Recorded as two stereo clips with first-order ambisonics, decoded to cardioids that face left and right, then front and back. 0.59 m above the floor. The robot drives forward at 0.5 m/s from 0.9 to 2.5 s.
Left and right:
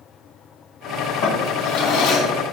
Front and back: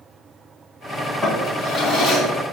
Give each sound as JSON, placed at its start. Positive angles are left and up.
{"t": 1.2, "sound": "a drawer", "azimuth_deg": 95, "distance_m": 2.5}